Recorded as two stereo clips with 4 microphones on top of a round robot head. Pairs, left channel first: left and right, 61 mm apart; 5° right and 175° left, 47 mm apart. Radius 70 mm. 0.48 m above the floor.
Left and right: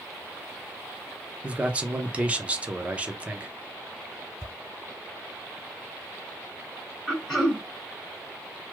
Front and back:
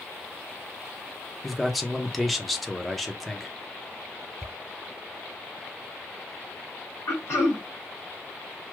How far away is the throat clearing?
About 1.7 m.